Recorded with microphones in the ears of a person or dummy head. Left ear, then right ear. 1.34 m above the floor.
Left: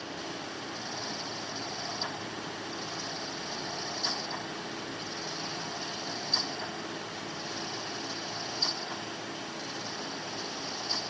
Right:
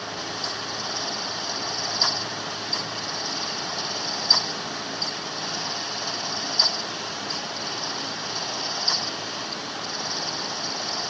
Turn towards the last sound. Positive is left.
No sound to turn to.